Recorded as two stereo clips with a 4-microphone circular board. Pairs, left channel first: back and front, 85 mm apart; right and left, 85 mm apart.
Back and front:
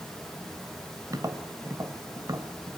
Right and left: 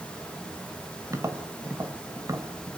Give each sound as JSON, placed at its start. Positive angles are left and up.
{"t": 1.1, "sound": "tapping", "azimuth_deg": 40, "distance_m": 1.9}